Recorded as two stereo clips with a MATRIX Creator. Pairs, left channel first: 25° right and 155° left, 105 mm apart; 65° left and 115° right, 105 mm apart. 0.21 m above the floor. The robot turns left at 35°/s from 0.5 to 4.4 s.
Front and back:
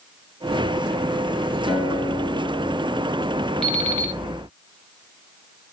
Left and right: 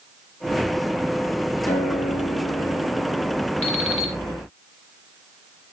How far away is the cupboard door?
I don't hear a cupboard door.